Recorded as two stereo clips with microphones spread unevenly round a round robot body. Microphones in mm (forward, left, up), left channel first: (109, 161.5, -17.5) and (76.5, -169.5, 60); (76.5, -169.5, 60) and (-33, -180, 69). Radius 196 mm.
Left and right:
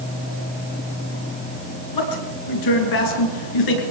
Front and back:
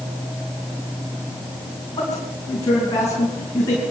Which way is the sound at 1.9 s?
75° left.